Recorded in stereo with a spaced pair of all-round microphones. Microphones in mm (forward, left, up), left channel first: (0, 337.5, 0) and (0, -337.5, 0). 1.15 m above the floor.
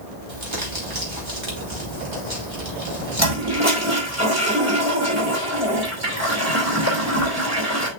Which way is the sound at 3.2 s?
20° right (ahead or behind).